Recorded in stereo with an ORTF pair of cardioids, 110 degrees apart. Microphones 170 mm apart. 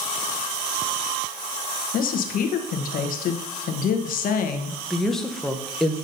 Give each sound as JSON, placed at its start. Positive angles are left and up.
{"t": 1.9, "sound": "a woman speaking", "azimuth_deg": 55, "distance_m": 1.1}
{"t": 4.9, "sound": "a woman speaking", "azimuth_deg": 0, "distance_m": 0.9}